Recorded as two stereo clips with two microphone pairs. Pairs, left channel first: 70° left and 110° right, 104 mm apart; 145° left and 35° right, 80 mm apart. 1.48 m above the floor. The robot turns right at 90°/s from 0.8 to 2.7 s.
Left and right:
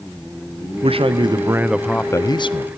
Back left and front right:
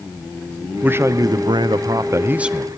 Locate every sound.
0.8 s a man speaking: 105° right, 0.7 m; by 2.7 s 60° left, 0.7 m